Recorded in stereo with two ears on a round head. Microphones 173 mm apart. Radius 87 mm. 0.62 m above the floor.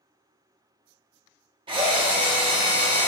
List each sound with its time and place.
1.7 s a drill: 25° right (ahead or behind), 0.6 m